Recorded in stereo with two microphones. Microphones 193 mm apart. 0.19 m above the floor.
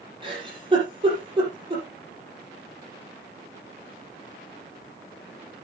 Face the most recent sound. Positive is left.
turn(degrees=-25)  # may be behind; listen again after turning